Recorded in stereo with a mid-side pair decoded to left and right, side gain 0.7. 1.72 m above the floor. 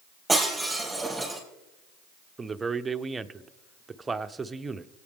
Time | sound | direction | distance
0.3 | breaking glass | 10° right | 4.5 m
2.4 | a man speaking | 15° right | 0.7 m